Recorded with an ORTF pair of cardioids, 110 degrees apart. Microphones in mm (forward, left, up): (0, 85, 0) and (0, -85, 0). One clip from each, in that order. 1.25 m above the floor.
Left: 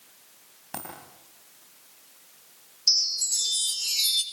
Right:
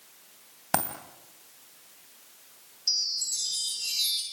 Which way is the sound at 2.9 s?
40° left.